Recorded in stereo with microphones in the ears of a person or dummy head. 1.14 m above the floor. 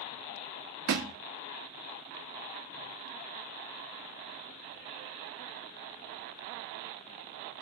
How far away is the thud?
About 0.8 m.